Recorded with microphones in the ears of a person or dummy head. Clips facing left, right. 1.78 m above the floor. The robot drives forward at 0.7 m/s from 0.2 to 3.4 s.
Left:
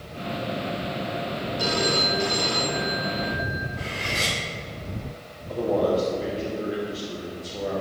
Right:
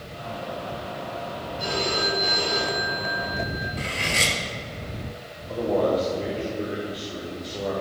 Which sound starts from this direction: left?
A phone ringing, at 1.6 s.